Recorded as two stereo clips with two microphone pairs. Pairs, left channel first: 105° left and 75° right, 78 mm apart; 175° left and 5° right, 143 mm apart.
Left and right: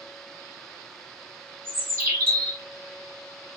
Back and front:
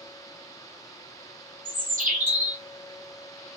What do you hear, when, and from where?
1.6 s a bird: 15° right, 1.5 m